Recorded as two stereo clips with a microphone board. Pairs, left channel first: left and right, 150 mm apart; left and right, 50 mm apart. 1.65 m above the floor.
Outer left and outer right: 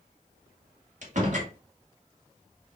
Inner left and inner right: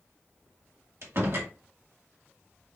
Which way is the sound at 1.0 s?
55° right (ahead or behind).